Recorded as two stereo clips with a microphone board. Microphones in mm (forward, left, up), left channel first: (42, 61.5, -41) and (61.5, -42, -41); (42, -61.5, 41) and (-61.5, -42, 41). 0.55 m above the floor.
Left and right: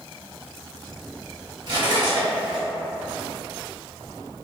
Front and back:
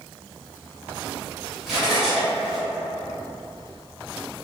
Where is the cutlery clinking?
105° right, 1.5 m.